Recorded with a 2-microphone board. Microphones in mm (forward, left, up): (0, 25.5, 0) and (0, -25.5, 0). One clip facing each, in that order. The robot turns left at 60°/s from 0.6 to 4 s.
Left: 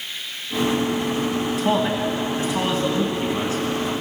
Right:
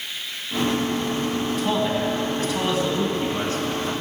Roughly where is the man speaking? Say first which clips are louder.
Left 2 dB; centre.